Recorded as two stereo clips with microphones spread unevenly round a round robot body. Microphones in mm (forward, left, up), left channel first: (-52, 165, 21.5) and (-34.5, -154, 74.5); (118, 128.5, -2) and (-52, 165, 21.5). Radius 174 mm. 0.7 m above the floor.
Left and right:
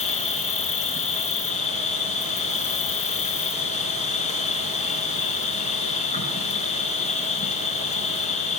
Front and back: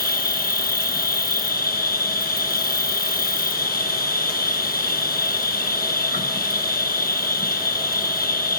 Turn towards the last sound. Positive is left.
turn(degrees=20)